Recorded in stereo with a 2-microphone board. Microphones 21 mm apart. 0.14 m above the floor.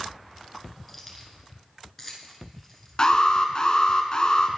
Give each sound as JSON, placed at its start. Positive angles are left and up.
{"t": 0.9, "sound": "keys jangling", "side_deg": 10, "distance_m": 1.4}
{"t": 3.0, "sound": "an alarm", "side_deg": 35, "distance_m": 0.9}